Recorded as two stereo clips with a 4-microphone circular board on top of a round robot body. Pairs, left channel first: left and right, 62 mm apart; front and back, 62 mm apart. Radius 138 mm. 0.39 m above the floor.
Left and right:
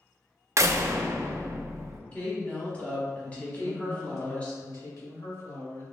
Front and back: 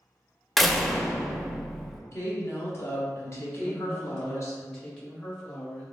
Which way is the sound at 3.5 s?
80° left.